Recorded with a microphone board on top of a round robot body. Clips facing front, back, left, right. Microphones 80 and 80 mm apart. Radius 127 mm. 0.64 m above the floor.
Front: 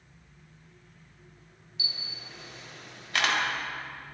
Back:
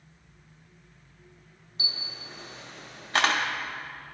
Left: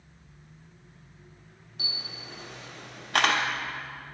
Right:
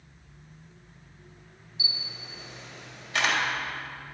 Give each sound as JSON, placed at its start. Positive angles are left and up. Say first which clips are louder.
{"t": 1.8, "sound": "a camera shutter", "louder": "back 3 dB, even", "azimuth_deg": 125, "distance_m": 1.1}